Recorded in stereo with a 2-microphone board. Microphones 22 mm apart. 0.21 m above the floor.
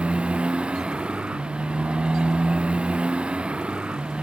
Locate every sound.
0.0 s a motorcycle: 50° right (ahead or behind)